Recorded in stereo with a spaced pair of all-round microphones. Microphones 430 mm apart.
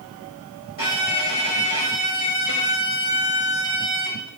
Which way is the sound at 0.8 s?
65° left (ahead or behind).